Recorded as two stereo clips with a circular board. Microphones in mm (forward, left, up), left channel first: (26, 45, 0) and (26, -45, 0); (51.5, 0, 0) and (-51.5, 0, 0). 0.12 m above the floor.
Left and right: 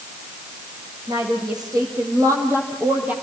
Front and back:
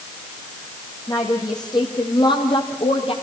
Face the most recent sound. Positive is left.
turn(degrees=-15)